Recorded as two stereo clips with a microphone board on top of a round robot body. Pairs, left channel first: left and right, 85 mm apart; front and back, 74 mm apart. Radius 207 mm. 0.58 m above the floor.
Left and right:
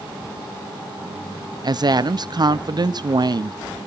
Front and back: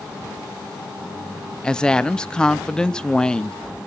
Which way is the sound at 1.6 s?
75° right.